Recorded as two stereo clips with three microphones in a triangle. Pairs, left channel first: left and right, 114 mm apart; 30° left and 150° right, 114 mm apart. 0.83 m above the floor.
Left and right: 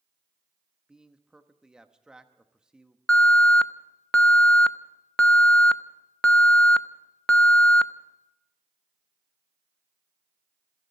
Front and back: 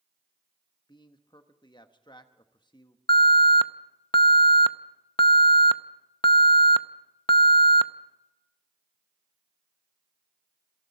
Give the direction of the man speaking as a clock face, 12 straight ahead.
12 o'clock.